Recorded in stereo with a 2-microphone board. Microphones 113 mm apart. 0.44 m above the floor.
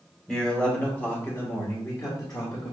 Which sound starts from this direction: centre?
A man speaking, at 0.3 s.